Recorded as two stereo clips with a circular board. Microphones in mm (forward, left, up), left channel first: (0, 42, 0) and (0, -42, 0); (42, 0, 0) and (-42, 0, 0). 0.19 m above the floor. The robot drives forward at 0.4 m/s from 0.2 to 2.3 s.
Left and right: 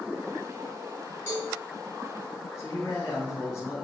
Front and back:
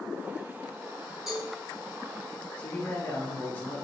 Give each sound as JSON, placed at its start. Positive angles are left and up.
{"t": 1.3, "sound": "a cowbell", "azimuth_deg": 95, "distance_m": 1.7}
{"t": 2.6, "sound": "a man speaking", "azimuth_deg": 55, "distance_m": 1.7}